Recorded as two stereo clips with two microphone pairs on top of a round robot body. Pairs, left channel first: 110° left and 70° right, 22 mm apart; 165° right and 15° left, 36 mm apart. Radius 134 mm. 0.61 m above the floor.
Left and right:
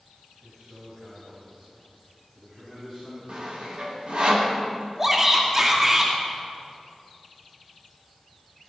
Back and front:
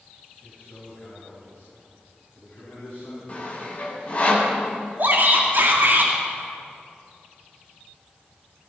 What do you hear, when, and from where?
0.4 s a man speaking: 120° right, 4 m
3.3 s sawing: 105° right, 2.5 m
5.0 s a shout: 5° right, 2.5 m